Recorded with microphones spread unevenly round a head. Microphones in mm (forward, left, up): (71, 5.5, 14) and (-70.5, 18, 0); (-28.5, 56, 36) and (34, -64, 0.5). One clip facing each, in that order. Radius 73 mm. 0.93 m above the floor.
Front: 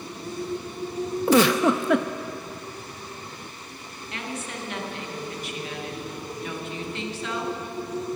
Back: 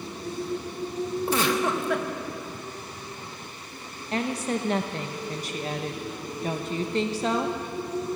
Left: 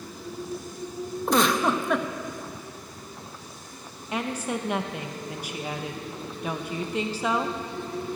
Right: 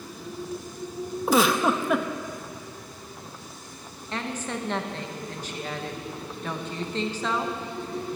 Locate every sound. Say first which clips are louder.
1.3 s a giggle: front 8 dB, right 1 dB; 20° left, 0.7 m
4.1 s a woman speaking: back 8 dB, left 3 dB; 155° right, 0.8 m